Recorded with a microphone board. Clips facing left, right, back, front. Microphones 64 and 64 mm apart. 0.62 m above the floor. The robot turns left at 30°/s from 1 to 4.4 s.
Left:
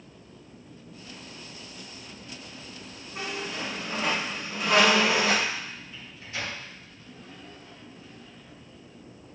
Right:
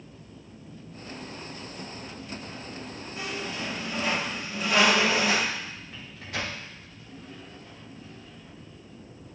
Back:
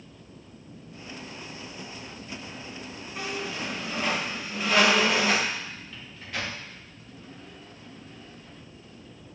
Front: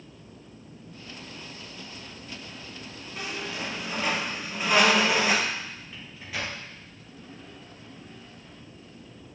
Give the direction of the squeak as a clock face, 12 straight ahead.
9 o'clock.